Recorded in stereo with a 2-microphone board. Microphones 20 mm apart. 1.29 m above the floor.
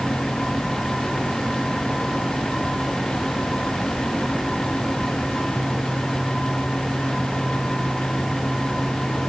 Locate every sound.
Only background noise.